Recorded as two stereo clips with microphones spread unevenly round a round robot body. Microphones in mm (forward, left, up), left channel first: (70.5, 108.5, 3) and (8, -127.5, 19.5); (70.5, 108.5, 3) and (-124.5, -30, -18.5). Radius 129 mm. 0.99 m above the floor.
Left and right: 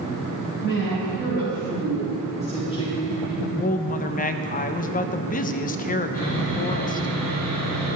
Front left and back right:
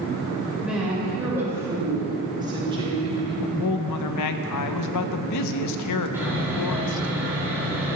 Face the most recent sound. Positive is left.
turn(degrees=135)